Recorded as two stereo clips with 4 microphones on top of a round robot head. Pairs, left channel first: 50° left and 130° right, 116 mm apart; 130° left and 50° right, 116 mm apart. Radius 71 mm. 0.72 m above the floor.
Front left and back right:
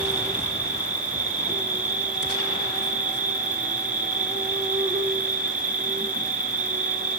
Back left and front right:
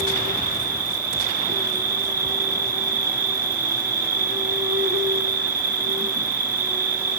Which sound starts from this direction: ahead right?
An insect, at 0.0 s.